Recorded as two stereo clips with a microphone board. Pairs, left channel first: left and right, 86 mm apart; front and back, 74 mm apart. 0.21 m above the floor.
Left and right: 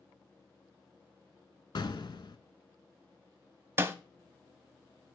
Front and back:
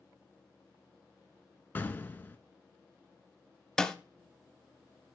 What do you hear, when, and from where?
1.8 s an explosion: 60° left, 0.6 m
3.8 s a snare drum: 75° right, 0.5 m